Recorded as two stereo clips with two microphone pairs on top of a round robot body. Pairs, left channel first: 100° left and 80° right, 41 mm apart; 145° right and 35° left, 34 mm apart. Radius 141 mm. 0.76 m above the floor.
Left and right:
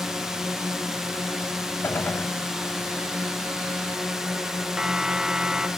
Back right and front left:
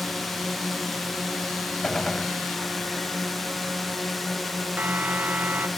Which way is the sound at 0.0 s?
105° right.